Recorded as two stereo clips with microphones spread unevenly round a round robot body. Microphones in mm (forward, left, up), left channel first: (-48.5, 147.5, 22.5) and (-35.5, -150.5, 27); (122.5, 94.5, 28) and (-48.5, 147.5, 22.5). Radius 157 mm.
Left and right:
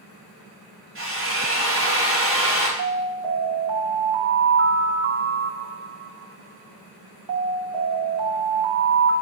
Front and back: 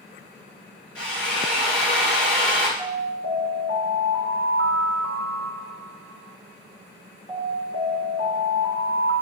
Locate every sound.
0.9 s a drill: 35° right, 2 m
2.8 s an alarm: 85° right, 2 m